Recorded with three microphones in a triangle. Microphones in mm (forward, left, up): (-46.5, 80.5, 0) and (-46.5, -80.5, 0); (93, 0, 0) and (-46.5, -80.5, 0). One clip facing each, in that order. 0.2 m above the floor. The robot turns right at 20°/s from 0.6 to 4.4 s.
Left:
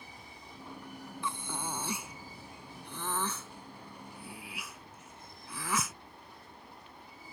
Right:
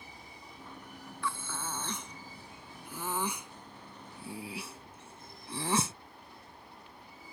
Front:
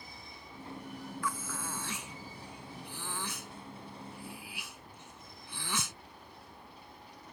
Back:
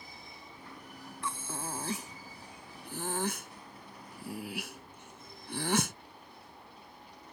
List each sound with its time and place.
1.2 s breathing: 155° left; by 6.0 s 145° right